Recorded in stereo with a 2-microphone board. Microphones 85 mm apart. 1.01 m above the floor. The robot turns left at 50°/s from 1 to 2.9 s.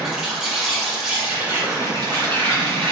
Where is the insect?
10° right, 1.8 m; by 2.9 s 105° right, 1.8 m.